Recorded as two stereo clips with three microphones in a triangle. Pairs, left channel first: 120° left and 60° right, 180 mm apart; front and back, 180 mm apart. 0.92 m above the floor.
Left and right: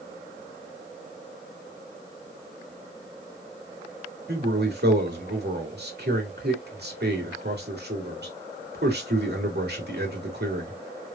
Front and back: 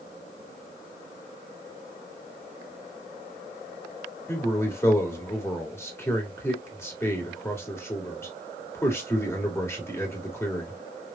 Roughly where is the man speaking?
Right.